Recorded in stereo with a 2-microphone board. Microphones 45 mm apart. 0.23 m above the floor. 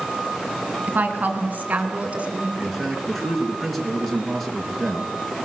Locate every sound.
0.9 s a woman speaking: 45° right (ahead or behind), 3 m; by 2.5 s 30° right (ahead or behind), 2 m
2.6 s a man speaking: 5° left (ahead or behind), 3 m